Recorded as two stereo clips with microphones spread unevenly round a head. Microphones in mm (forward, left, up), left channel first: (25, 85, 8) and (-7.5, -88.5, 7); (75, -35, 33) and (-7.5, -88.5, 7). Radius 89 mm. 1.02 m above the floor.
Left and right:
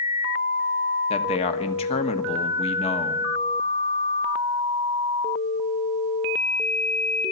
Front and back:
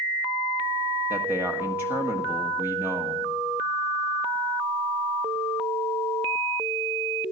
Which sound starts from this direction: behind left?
A man speaking, at 1.1 s.